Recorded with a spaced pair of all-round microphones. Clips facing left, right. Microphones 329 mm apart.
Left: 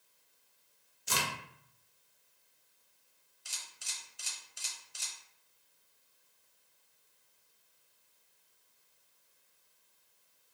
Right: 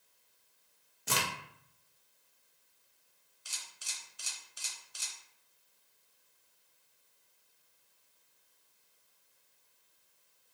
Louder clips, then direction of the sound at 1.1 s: Right 2 dB; 65° right (ahead or behind).